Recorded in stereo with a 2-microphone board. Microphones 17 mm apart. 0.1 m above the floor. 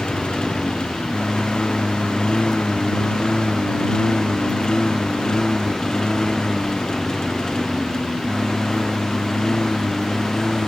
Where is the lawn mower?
50° left (ahead or behind); by 10.7 s 25° left (ahead or behind).